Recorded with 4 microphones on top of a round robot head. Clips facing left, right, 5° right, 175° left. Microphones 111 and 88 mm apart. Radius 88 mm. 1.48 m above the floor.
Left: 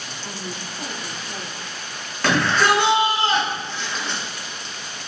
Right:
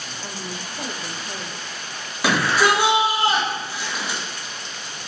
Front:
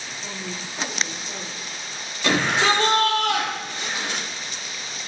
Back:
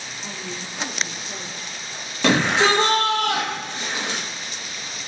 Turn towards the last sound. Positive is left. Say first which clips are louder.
# even, back 2 dB
turn(degrees=-170)